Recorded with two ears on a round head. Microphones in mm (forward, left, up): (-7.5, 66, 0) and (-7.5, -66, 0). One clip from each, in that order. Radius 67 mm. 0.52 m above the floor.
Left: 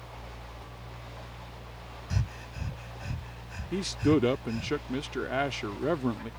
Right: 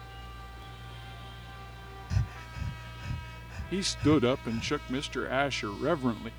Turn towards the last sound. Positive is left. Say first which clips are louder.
# even
turn(degrees=-25)  # may be behind; listen again after turning